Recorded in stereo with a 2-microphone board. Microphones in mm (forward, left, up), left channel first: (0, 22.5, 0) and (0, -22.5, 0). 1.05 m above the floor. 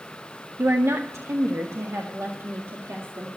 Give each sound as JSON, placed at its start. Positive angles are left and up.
{"t": 0.6, "sound": "a woman speaking", "side_deg": -65, "distance_m": 0.6}